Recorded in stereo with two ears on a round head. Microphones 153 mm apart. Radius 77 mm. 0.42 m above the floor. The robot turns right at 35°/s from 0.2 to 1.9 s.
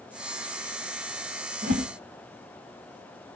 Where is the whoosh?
50° right (ahead or behind), 2.5 m; by 1.9 s 55° right (ahead or behind), 2.5 m.